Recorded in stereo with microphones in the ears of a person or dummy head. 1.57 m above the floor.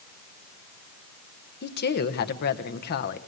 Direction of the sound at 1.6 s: 50° left (ahead or behind).